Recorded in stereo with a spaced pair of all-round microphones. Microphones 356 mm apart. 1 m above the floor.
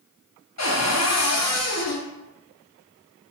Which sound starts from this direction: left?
A cupboard door, at 0.6 s.